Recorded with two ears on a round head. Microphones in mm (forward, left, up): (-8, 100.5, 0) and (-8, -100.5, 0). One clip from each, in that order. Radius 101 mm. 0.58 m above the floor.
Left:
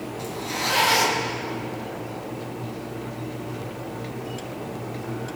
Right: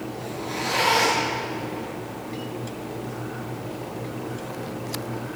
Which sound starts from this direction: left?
A zipper, at 0.2 s.